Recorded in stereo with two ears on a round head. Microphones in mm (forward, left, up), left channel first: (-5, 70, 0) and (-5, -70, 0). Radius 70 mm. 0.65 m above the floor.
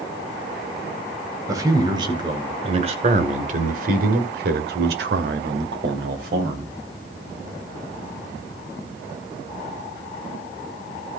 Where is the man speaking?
20° right (ahead or behind), 3 m; by 6.7 s 65° right (ahead or behind), 3 m.